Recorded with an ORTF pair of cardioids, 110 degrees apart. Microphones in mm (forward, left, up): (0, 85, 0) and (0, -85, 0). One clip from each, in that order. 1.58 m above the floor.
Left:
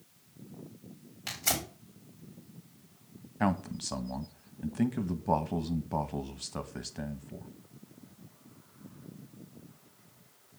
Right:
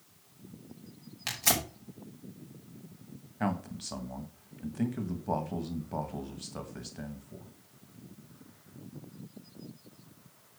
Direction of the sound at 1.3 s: 35° right.